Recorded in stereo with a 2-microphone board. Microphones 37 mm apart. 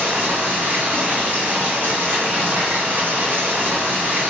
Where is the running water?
65° right (ahead or behind), 3 m.